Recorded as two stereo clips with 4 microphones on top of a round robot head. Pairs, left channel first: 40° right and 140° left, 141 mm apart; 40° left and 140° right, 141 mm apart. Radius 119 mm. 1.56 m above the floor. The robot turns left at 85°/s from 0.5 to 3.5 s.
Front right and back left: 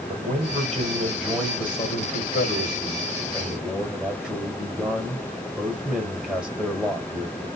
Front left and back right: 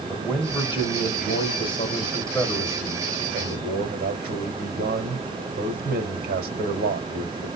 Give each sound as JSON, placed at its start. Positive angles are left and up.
{"t": 0.1, "sound": "a man speaking", "azimuth_deg": 120, "distance_m": 1.7}